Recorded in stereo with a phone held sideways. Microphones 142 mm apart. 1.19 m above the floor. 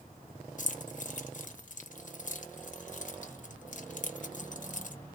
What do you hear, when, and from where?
0.6 s keys jangling: 60° left (ahead or behind), 0.7 m